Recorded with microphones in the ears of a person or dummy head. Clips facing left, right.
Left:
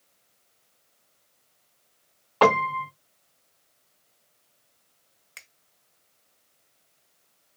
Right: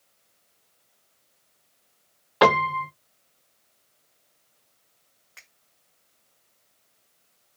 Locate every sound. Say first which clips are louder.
2.4 s a piano: right 1 dB; 15° right (ahead or behind), 0.6 m
5.4 s a finger snap: left 3 dB; 30° left (ahead or behind), 0.7 m